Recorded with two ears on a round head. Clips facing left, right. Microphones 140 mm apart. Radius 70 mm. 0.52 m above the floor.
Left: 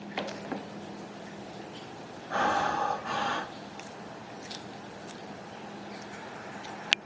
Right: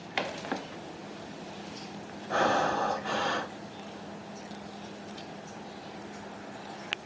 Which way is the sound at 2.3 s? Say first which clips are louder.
Right 2 dB; 40° right (ahead or behind).